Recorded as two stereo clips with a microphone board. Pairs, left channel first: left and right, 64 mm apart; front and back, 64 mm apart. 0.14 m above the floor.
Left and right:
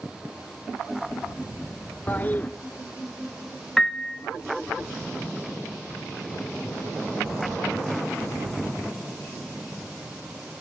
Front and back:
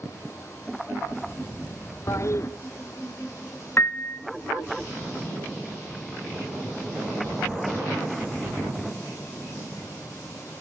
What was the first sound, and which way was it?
A toilet flushing, 30° left.